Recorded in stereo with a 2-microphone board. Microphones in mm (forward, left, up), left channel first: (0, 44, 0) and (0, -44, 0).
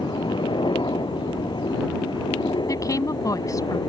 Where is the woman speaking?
40° left (ahead or behind).